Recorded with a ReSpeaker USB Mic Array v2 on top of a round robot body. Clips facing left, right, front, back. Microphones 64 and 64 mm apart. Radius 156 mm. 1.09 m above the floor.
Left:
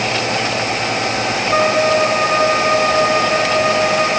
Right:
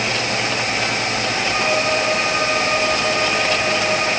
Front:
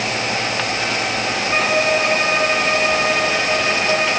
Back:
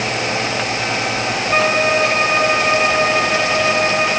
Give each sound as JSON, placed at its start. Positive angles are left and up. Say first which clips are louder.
{"t": 1.5, "sound": "a violin", "louder": "left 7 dB, back 2 dB", "azimuth_deg": 95, "distance_m": 6.0}